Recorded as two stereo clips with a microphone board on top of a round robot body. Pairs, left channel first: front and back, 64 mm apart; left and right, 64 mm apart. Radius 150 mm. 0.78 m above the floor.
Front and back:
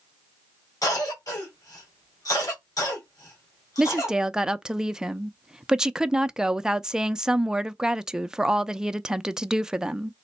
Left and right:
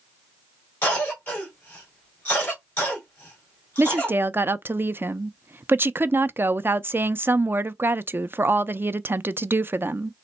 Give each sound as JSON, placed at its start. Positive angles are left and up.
{"t": 0.8, "sound": "a cough", "azimuth_deg": 25, "distance_m": 3.5}
{"t": 3.8, "sound": "a woman speaking", "azimuth_deg": -110, "distance_m": 0.6}